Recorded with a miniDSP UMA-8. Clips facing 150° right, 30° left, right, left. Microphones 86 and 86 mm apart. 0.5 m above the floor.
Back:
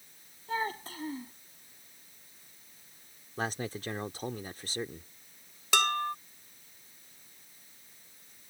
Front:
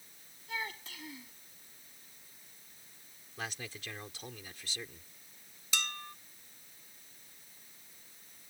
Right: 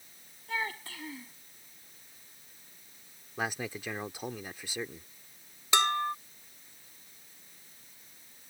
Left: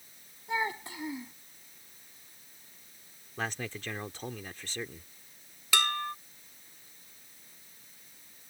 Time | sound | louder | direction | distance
0.5 | a child speaking | back 8 dB, left 3 dB | 160° left | ?
3.4 | a man speaking | back 8 dB, right 1 dB | 165° right | ?
5.7 | dishes clattering | back 13 dB, right 4 dB | 155° right | ?